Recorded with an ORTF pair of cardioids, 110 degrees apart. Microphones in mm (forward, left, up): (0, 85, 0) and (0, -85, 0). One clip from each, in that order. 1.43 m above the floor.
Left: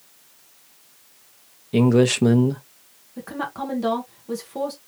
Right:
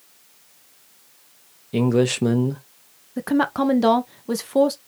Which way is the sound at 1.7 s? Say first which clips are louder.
Left 2 dB; 10° left.